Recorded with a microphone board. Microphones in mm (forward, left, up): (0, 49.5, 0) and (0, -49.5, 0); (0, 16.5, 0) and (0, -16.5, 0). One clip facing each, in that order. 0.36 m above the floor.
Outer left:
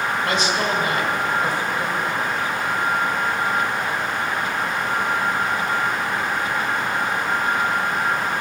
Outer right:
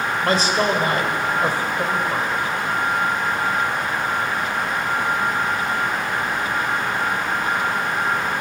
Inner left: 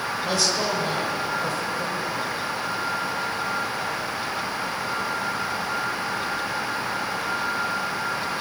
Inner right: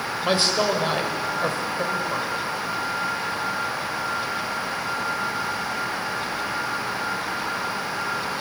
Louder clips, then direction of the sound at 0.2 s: Outer right 6 dB, inner right 4 dB; 40° right (ahead or behind).